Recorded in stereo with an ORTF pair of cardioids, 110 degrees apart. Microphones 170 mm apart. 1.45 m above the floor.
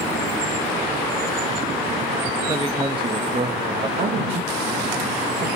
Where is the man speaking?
25° right, 1.9 m.